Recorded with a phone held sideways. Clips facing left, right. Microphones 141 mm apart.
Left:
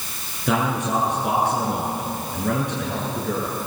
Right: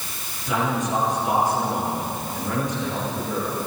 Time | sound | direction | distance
0.5 | a man speaking | 70° left (ahead or behind) | 9.5 m